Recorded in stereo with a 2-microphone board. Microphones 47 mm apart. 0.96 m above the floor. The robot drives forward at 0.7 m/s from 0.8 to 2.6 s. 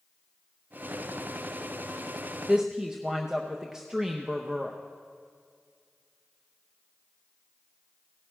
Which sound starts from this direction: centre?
A woman speaking, at 2.5 s.